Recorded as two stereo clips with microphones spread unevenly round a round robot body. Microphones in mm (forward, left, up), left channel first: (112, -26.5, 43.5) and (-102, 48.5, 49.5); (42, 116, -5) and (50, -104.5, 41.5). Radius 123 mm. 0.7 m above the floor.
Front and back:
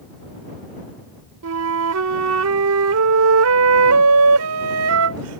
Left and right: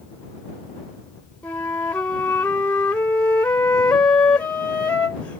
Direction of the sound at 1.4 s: 175° left.